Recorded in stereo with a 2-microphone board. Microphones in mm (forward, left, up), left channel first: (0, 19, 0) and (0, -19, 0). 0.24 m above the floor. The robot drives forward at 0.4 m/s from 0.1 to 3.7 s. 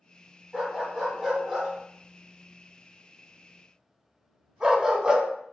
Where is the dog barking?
10° right (ahead or behind), 1.8 m; by 5.3 s 25° right (ahead or behind), 0.7 m.